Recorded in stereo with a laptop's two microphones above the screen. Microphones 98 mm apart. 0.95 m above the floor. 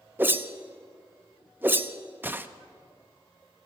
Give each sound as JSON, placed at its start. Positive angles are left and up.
{"t": 0.2, "sound": "a whoosh", "side_deg": -20, "distance_m": 0.5}